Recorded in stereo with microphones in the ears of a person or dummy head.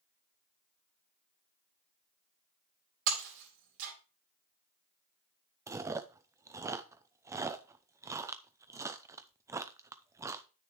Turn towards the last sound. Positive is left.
turn(degrees=-20)  # may be behind; listen again after turning